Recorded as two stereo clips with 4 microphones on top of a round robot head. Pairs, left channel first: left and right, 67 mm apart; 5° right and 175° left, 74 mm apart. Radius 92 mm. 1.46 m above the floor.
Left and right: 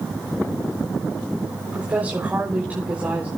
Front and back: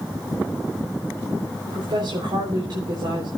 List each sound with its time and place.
1.7 s a woman speaking: 155° right, 4 m